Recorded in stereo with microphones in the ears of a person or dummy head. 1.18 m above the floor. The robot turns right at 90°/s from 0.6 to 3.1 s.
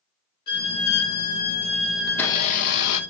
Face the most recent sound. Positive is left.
turn(degrees=95)